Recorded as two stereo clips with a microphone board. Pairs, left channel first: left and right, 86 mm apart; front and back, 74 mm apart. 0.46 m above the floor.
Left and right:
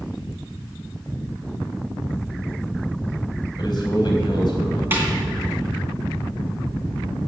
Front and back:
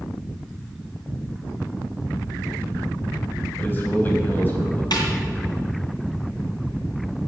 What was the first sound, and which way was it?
A man speaking, 65° left.